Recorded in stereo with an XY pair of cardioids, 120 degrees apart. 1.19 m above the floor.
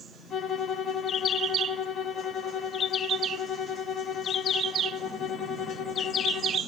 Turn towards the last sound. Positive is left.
turn(degrees=55)